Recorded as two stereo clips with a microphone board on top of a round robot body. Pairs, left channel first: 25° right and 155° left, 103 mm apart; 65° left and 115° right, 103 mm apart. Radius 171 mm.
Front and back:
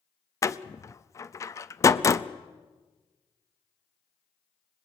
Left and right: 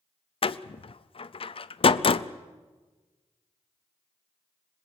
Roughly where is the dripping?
No dripping in this recording.